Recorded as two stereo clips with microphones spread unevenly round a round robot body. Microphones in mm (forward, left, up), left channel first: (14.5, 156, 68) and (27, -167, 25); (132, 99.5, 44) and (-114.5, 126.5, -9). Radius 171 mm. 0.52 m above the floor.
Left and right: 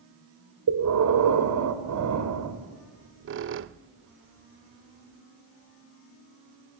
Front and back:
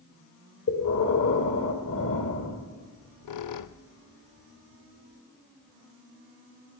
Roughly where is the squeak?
Ahead right.